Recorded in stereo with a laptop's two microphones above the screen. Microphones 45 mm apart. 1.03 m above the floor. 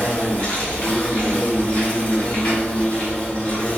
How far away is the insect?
About 1.3 m.